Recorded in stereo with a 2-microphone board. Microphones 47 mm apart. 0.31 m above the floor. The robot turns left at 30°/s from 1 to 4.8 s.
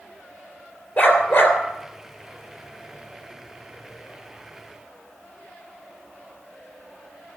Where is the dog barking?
45° left (ahead or behind), 2.5 m; by 1.6 s 60° left (ahead or behind), 2.5 m.